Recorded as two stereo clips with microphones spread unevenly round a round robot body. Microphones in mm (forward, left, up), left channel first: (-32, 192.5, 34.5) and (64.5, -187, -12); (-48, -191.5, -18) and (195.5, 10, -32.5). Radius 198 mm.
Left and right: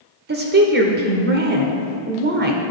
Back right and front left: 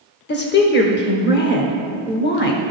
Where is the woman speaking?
105° right, 1.1 m.